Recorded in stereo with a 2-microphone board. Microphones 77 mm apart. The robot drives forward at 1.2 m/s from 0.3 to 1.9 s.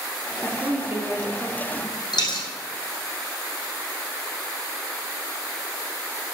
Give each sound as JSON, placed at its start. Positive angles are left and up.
{"t": 0.4, "sound": "a woman speaking", "side_deg": -35, "distance_m": 1.3}
{"t": 2.1, "sound": "a dropped coin", "side_deg": 70, "distance_m": 2.5}